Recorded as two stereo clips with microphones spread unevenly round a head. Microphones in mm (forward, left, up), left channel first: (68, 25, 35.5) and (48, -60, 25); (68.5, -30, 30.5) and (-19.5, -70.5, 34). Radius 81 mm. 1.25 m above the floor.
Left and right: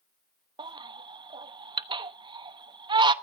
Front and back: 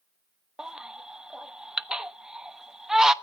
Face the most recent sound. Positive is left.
turn(degrees=-70)